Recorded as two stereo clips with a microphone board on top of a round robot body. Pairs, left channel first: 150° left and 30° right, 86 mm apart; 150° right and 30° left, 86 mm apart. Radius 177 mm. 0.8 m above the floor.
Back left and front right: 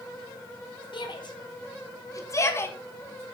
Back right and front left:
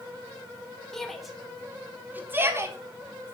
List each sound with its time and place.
0.9 s a shout: 125° left, 3.5 m; by 2.8 s 85° left, 3.5 m